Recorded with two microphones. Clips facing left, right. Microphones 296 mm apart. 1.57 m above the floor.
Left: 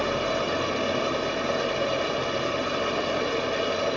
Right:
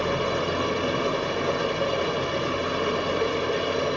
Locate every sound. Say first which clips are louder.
0.0 s running water: right 1 dB; 65° right (ahead or behind), 6 m